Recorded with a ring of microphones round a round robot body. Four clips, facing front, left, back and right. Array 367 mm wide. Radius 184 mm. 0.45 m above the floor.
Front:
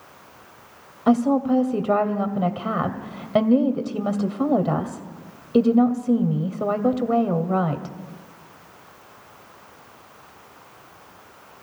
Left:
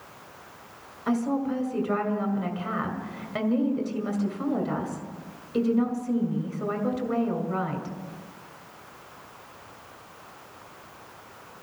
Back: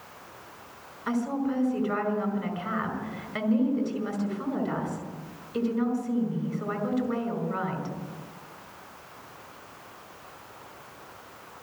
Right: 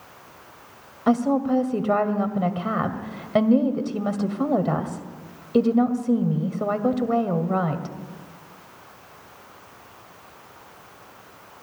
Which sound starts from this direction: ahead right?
A woman speaking, at 1.1 s.